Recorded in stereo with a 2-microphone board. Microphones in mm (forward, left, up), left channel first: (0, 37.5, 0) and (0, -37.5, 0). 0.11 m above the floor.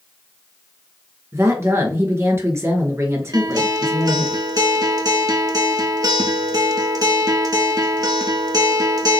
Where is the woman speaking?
40° right (ahead or behind), 1.4 m.